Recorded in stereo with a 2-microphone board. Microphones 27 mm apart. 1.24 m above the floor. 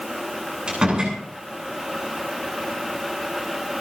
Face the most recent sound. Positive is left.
turn(degrees=-30)  # may be behind; listen again after turning